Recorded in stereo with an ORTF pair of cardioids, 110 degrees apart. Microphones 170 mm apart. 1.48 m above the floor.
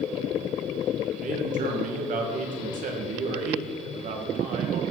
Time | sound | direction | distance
1.2 | a man speaking | 50° right | 1.8 m